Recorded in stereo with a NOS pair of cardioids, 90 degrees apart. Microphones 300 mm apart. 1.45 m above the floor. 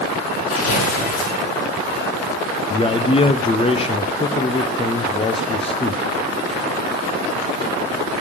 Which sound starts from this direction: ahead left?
Tearing paper, at 0.5 s.